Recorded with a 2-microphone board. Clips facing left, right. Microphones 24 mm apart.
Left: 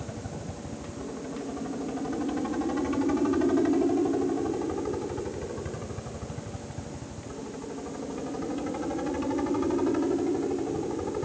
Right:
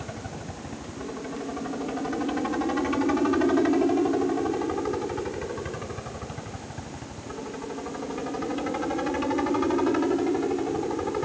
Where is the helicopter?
30° right (ahead or behind); by 11.3 s 35° right (ahead or behind).